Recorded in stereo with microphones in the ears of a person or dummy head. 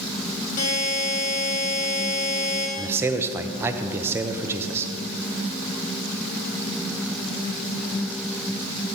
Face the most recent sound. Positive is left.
turn(degrees=-15)  # may be behind; listen again after turning